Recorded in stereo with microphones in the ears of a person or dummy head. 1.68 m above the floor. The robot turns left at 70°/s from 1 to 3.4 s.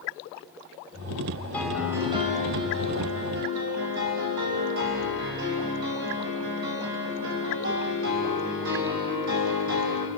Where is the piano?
15° left, 3 m; by 10.1 s 115° right, 3 m.